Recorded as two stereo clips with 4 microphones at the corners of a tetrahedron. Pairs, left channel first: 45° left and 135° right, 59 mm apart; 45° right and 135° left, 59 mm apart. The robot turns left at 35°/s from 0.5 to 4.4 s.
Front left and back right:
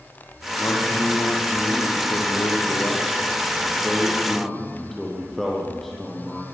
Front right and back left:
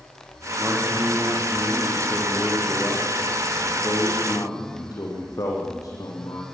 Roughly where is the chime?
I don't hear a chime.